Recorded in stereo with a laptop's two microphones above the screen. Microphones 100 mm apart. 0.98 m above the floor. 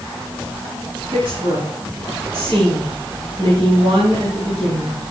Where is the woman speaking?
75° right (ahead or behind), 6.5 m.